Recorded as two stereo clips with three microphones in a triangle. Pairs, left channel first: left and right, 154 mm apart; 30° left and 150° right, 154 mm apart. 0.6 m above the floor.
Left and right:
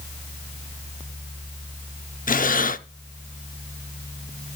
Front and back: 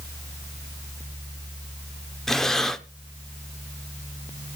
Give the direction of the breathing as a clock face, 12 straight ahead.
8 o'clock.